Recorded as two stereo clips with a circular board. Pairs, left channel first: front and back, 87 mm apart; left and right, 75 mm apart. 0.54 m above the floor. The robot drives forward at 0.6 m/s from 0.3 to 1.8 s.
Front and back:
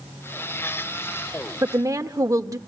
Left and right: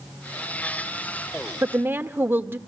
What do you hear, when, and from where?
1.6 s a woman speaking: 140° right, 1.1 m